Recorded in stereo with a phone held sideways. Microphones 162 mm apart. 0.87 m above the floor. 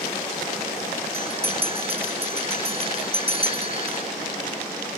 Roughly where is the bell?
Right.